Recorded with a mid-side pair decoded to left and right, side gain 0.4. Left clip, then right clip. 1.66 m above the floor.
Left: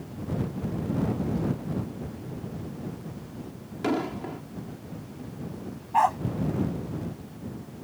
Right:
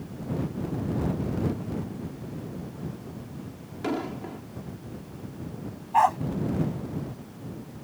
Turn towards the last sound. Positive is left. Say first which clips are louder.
# right 1 dB
turn(degrees=-15)